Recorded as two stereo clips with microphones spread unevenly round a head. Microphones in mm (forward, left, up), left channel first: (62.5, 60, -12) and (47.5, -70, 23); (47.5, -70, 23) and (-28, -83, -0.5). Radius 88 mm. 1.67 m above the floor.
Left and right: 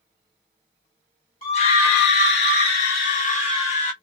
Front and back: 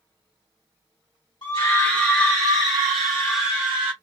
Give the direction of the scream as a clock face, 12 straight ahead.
10 o'clock.